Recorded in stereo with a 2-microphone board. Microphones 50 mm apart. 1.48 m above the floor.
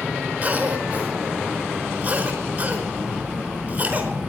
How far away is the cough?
About 4.5 m.